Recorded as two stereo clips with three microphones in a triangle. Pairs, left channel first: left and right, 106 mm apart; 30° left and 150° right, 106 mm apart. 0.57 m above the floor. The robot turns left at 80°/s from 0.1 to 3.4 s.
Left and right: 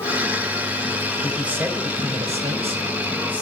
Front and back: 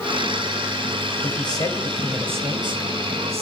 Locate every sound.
1.2 s a man speaking: 5° left, 3.5 m; by 3.4 s 170° right, 3.5 m